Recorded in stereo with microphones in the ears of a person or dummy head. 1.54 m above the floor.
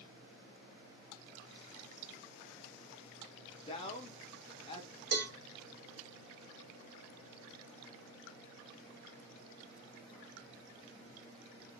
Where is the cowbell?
60° right (ahead or behind), 0.8 m.